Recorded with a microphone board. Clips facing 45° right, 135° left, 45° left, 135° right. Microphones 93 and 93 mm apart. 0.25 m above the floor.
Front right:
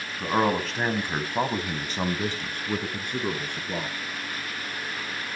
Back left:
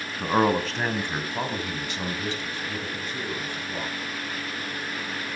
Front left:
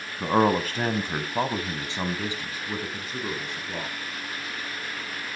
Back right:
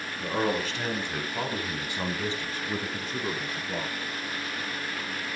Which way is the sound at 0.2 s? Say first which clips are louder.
Back left 2 dB, front left 7 dB; 60° left.